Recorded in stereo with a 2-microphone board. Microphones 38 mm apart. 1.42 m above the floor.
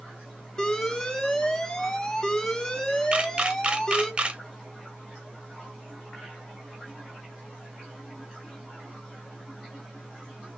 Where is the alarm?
20° left (ahead or behind), 1.0 m.